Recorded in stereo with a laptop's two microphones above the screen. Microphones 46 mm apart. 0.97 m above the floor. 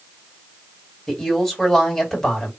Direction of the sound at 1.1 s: 10° left (ahead or behind).